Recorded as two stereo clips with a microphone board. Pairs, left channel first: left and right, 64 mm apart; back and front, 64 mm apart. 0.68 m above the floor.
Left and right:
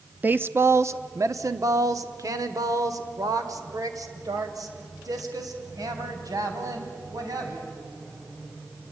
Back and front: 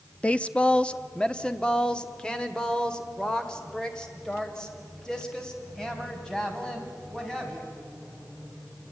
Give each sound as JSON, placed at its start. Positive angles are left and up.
{"t": 0.2, "sound": "a woman speaking", "azimuth_deg": -125, "distance_m": 0.5}